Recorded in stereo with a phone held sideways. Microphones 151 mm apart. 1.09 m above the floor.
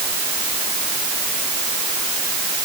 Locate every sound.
Only background noise.